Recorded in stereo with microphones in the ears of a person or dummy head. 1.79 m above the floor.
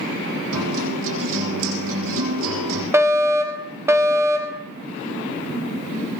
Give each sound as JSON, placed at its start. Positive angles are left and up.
{"t": 0.5, "sound": "a guitar", "side_deg": -80, "distance_m": 9.0}
{"t": 2.9, "sound": "a fire alarm", "side_deg": -15, "distance_m": 2.5}